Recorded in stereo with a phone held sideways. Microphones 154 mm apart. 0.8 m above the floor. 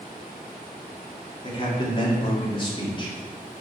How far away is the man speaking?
About 2 m.